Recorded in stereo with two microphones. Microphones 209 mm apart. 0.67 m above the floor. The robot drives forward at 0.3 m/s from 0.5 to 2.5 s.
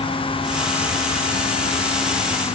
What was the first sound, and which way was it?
Only background noise.